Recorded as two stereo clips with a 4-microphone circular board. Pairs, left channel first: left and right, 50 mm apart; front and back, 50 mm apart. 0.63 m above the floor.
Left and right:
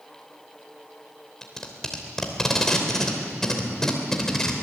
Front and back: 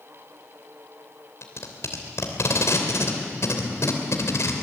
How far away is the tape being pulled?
About 3 m.